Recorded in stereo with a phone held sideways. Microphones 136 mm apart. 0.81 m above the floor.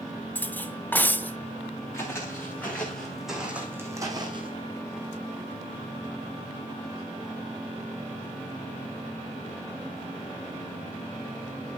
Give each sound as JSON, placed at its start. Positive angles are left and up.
{"t": 0.3, "sound": "cutlery clinking", "side_deg": 10, "distance_m": 0.6}
{"t": 1.9, "sound": "footsteps", "side_deg": 20, "distance_m": 4.5}